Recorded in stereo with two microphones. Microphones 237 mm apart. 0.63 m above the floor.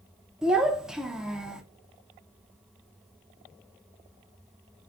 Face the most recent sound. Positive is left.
turn(degrees=-5)  # may be behind; listen again after turning